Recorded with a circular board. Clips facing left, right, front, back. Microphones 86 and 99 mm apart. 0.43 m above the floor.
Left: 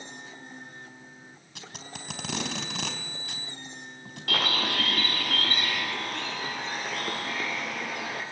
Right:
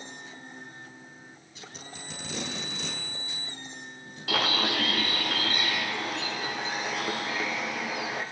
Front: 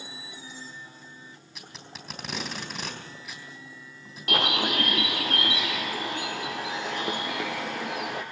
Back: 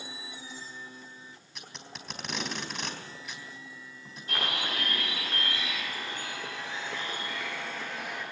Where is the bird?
5° right, 3.5 m.